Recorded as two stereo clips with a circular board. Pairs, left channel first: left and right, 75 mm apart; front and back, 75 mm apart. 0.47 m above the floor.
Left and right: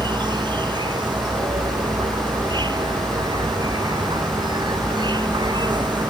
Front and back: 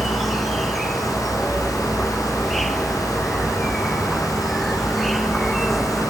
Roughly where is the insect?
Right.